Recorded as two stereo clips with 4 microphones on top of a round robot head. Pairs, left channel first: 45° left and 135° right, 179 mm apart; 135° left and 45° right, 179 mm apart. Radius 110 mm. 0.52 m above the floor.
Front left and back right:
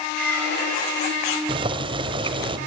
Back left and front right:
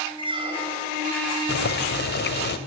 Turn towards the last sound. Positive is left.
turn(degrees=165)